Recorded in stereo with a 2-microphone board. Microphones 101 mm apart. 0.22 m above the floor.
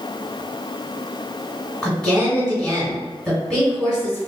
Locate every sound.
1.8 s a woman speaking: 5° left (ahead or behind), 1.9 m